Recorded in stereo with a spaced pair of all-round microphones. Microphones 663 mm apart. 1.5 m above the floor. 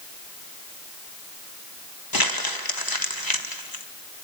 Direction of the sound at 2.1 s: 30° left (ahead or behind).